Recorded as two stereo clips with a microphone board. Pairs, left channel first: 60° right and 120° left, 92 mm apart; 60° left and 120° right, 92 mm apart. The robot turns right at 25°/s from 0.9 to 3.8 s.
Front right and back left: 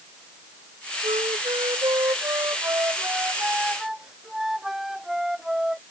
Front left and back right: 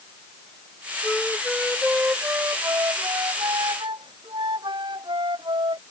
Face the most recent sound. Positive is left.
turn(degrees=-155)